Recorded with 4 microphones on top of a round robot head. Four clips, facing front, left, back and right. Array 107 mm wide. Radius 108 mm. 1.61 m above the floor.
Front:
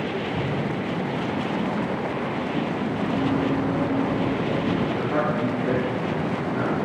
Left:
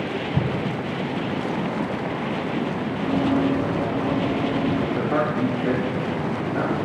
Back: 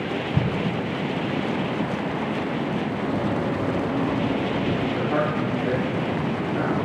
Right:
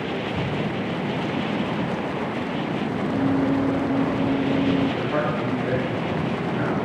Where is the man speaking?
105° left, 1.6 m.